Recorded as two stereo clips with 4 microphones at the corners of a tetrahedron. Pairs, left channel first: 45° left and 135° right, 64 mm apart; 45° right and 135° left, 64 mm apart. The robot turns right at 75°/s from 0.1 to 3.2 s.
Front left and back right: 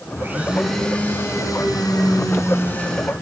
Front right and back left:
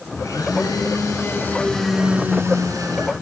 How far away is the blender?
About 5.5 m.